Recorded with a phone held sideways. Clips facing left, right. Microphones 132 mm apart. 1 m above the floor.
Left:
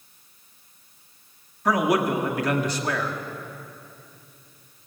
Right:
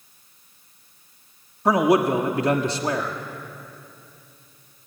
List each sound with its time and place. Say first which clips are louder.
1.6 s a man speaking: right 4 dB; 25° right (ahead or behind), 1.7 m